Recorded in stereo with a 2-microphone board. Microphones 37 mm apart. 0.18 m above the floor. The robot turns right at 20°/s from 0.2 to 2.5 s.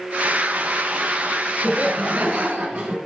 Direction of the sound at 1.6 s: 40° right (ahead or behind).